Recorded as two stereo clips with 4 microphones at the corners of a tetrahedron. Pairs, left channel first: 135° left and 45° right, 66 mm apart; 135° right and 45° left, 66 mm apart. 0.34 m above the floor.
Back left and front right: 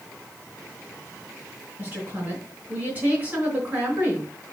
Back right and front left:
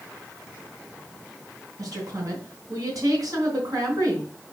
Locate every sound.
1.8 s a woman speaking: 20° left, 3.5 m